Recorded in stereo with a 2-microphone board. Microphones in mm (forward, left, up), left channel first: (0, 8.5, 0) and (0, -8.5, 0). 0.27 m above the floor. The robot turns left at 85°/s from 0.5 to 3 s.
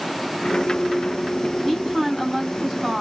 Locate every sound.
1.6 s a woman speaking: 95° left, 1.9 m; by 3.0 s 20° right, 1.9 m